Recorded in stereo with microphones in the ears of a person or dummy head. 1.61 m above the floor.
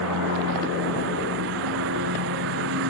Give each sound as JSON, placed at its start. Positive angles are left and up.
{"t": 0.0, "sound": "a lawn mower", "side_deg": -70}